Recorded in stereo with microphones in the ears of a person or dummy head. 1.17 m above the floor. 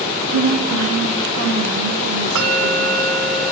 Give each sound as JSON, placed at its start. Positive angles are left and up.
{"t": 0.3, "sound": "a woman speaking", "side_deg": -75, "distance_m": 1.6}
{"t": 2.4, "sound": "a bell", "side_deg": -75, "distance_m": 2.5}